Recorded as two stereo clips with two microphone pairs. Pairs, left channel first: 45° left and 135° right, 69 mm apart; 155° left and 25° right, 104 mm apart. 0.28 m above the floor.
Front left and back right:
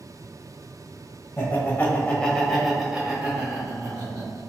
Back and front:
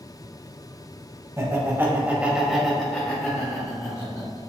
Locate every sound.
1.4 s laughter: 15° left, 1.2 m; by 4.5 s 175° right, 1.4 m